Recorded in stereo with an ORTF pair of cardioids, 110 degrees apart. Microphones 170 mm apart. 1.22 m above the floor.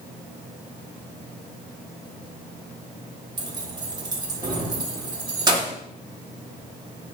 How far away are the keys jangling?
About 1.1 m.